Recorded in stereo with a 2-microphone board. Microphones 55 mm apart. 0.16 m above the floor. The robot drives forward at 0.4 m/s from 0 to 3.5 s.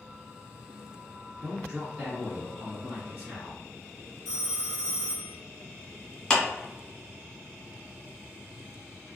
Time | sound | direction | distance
1.4 | a man speaking | 25° right (ahead or behind) | 1.5 m
4.2 | a phone ringing | 45° right (ahead or behind) | 1.2 m
6.3 | a clap | 10° left (ahead or behind) | 1.3 m